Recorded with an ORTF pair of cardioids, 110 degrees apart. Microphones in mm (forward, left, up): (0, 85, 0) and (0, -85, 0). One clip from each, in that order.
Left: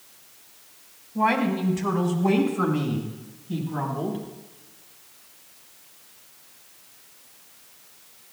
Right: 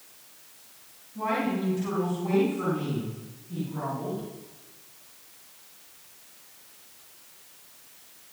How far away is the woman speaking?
About 5.5 m.